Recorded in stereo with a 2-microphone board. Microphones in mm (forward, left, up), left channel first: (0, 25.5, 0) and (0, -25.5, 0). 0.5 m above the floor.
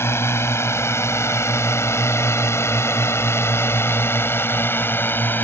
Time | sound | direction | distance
0.0 | a drone | 60° left (ahead or behind) | ?